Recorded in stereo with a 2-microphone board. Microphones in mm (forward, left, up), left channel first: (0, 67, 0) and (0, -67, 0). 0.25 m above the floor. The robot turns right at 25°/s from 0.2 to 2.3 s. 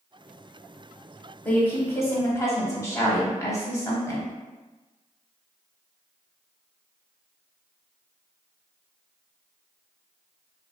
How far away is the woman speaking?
About 1.1 m.